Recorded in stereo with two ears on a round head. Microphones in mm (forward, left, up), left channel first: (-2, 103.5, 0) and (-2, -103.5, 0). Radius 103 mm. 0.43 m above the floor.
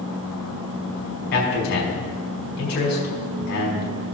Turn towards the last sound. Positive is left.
turn(degrees=45)  # may be behind; listen again after turning